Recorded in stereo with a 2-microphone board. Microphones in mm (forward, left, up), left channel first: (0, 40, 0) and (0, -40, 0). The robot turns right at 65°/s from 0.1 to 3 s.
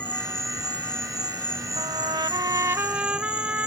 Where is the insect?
115° left; by 3.7 s 55° right.